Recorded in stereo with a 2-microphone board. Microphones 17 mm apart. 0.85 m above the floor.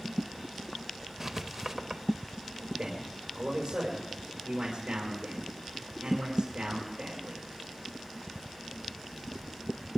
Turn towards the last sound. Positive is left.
turn(degrees=-80)